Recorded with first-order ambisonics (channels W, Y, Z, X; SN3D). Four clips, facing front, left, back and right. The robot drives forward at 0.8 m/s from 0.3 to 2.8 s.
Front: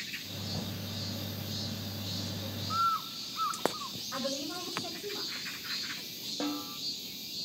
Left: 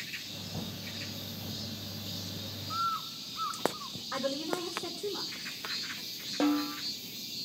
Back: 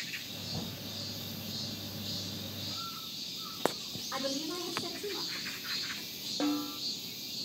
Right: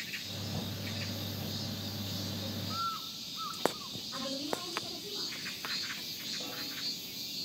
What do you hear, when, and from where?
2.7 s a bird: 15° left, 0.6 m; by 4.0 s 20° left, 0.5 m
4.1 s a woman speaking: 115° left, 4.5 m
6.4 s a snare drum: 95° left, 1.0 m